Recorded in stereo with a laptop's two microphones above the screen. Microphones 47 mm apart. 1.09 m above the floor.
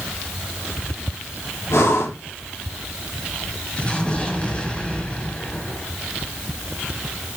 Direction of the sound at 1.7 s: 75° left (ahead or behind).